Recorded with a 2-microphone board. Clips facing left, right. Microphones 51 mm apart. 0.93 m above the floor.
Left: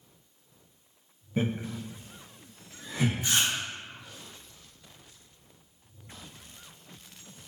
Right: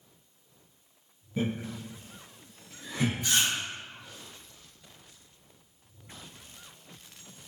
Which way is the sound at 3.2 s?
25° left (ahead or behind).